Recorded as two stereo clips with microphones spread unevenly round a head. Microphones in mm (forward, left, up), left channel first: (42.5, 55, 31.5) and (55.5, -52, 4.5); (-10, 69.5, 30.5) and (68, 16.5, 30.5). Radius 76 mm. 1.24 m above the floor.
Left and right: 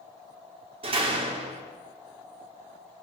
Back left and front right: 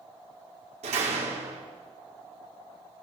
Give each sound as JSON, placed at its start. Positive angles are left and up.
{"t": 0.8, "sound": "a door slam", "azimuth_deg": -45, "distance_m": 2.5}